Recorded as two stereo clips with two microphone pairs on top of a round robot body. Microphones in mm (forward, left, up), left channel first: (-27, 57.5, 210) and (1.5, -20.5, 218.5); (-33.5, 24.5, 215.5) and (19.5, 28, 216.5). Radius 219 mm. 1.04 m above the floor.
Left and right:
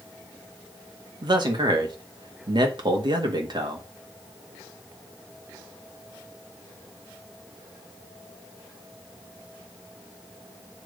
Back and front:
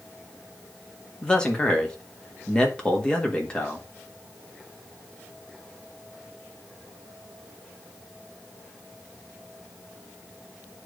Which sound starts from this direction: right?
A man speaking, at 1.2 s.